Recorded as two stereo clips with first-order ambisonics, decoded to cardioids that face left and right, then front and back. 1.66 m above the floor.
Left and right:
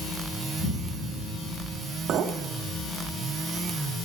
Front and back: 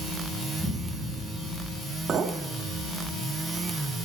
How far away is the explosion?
About 7.5 m.